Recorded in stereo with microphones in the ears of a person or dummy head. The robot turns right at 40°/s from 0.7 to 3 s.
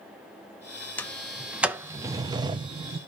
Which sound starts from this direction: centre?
A sliding door, at 1.0 s.